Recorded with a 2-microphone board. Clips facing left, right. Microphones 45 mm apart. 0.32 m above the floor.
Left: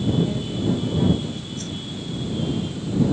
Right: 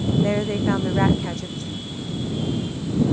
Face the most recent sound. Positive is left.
turn(degrees=70)  # may be behind; listen again after turning